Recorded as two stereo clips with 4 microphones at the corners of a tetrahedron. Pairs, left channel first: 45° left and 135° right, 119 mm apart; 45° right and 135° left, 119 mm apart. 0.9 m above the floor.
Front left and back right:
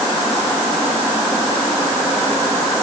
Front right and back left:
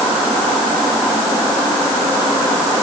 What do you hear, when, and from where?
Only background noise.